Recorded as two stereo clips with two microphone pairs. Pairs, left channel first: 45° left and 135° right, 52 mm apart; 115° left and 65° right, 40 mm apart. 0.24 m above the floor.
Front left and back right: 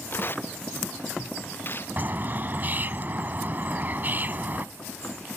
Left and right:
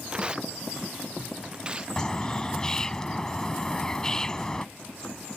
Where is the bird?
175° right.